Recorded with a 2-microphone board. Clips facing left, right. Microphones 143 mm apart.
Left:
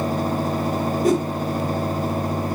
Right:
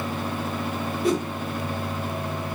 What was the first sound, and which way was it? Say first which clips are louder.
A whoosh: left 4 dB; 45° left (ahead or behind).